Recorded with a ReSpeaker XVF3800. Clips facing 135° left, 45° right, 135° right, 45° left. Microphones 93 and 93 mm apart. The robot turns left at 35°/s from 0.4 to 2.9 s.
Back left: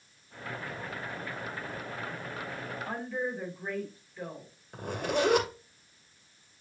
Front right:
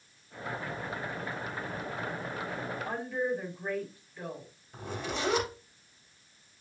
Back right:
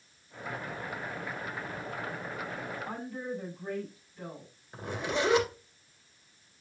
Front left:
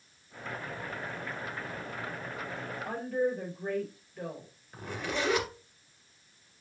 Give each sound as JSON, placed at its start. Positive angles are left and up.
{"t": 2.9, "sound": "a woman speaking", "azimuth_deg": 45, "distance_m": 4.0}
{"t": 4.7, "sound": "a zipper", "azimuth_deg": 155, "distance_m": 3.0}